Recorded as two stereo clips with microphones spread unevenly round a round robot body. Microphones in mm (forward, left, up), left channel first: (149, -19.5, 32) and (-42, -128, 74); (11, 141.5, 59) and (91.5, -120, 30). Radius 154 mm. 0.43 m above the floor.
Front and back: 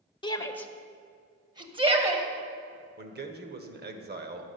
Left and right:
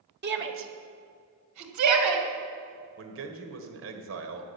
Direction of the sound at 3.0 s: 105° right.